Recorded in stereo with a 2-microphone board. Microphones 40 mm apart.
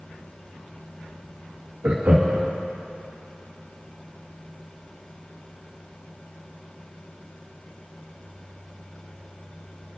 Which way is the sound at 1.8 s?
70° right (ahead or behind).